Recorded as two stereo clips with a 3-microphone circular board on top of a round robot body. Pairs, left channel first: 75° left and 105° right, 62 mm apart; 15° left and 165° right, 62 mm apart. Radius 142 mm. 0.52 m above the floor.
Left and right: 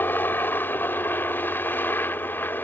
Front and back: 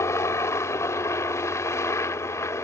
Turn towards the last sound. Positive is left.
turn(degrees=30)